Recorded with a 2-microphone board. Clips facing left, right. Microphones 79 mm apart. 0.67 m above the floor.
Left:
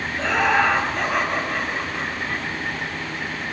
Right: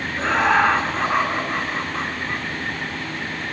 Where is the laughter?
30° right (ahead or behind), 8 m; by 2.5 s 20° right (ahead or behind), 6 m.